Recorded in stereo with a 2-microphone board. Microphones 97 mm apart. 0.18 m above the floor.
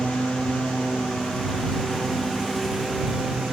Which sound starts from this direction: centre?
A lawn mower, at 0.0 s.